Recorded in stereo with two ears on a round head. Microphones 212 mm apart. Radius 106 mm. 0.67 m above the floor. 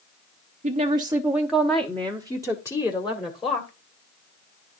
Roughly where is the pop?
No pop in this recording.